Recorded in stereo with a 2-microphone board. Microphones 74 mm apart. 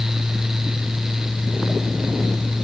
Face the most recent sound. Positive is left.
No sound to turn to.